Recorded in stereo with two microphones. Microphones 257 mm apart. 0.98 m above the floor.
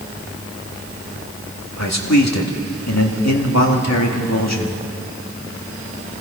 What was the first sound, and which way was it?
A man speaking, 70° left (ahead or behind).